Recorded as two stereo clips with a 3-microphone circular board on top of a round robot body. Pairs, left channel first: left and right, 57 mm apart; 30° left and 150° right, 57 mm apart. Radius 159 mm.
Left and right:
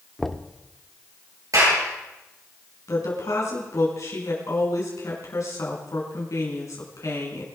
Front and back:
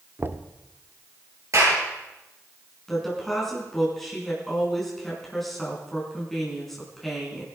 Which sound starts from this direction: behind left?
A woman speaking, at 2.9 s.